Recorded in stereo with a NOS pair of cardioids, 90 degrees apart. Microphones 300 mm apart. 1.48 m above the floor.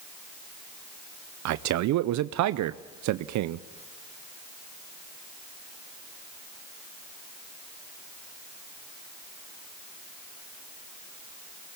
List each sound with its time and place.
1.4 s a man speaking: 70° right, 0.6 m